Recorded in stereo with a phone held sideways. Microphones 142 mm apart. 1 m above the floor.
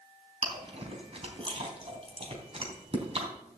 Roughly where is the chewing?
Right.